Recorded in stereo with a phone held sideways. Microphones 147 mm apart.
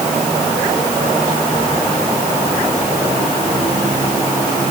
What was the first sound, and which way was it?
Only background noise.